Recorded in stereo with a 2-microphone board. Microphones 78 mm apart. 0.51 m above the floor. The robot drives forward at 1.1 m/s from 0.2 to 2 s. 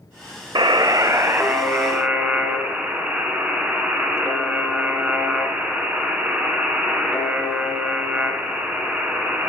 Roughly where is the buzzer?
Right.